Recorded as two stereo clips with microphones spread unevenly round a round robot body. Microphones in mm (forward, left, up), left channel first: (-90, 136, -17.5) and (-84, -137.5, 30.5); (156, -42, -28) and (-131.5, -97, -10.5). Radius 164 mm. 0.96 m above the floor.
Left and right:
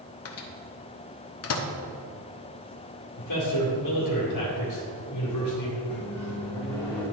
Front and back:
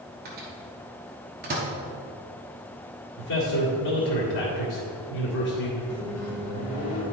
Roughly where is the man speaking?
Ahead left.